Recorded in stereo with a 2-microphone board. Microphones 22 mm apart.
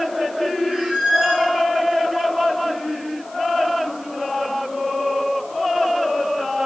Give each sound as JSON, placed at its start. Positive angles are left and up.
{"t": 0.7, "sound": "a squeak", "side_deg": -55, "distance_m": 6.0}